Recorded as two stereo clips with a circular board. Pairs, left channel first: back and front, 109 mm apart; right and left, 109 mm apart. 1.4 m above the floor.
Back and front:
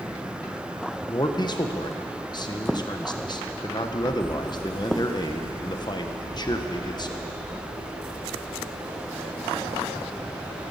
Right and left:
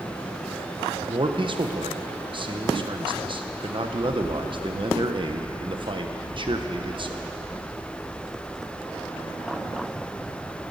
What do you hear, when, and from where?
1.1 s a man speaking: 130° left, 1.1 m